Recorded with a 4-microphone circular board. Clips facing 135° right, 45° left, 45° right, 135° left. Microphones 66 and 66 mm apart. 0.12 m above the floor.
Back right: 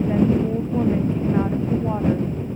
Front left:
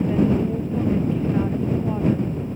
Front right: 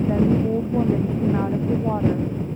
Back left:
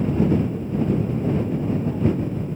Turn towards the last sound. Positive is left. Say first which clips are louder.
# back right 1 dB, front right 3 dB
turn(degrees=-65)